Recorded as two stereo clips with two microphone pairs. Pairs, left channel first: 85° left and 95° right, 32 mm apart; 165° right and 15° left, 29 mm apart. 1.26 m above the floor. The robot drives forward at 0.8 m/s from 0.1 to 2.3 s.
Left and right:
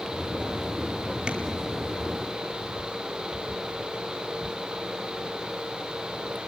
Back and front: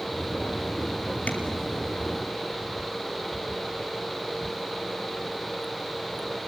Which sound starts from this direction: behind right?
Tapping, at 1.3 s.